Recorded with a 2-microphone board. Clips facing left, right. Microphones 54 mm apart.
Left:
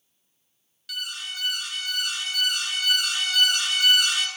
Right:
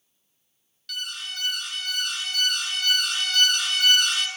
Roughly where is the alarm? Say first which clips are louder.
Even; centre.